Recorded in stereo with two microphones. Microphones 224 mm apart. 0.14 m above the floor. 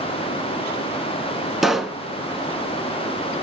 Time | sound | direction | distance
1.6 | a pop | centre (ahead or behind) | 0.7 m